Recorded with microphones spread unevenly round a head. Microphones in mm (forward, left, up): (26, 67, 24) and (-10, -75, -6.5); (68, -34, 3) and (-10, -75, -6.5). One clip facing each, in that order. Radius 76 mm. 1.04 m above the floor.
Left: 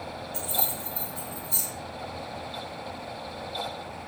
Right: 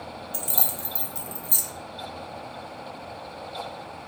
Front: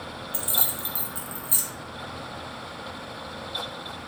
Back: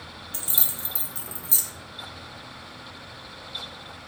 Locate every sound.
0.3 s keys jangling: 85° right, 0.7 m